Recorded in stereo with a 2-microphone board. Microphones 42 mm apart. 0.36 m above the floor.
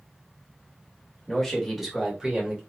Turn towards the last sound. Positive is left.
turn(degrees=-25)  # may be behind; listen again after turning